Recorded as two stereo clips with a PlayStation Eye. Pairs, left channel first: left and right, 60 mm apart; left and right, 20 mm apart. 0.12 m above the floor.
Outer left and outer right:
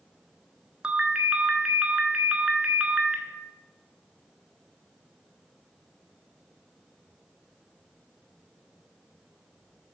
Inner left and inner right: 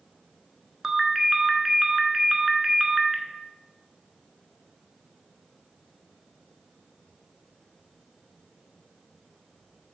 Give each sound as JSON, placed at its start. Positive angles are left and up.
{"t": 0.8, "sound": "a ringtone", "side_deg": -15, "distance_m": 0.8}